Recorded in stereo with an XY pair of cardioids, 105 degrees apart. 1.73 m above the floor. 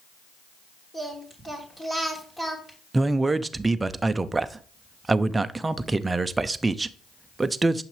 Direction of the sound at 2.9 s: 20° right.